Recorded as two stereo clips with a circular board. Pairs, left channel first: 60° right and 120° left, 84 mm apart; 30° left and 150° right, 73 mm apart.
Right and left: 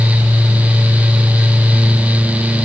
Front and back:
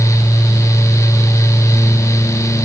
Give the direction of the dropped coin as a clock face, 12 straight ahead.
No dropped coin in this recording.